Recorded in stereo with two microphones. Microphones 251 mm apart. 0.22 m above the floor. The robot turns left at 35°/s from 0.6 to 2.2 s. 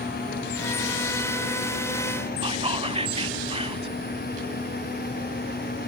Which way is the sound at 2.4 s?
25° right (ahead or behind).